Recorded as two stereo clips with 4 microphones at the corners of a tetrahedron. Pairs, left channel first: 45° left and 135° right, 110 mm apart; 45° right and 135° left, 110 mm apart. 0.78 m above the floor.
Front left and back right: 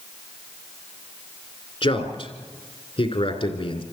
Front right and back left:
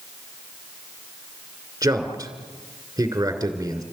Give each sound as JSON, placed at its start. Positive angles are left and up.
{"t": 1.8, "sound": "a man speaking", "azimuth_deg": 75, "distance_m": 2.5}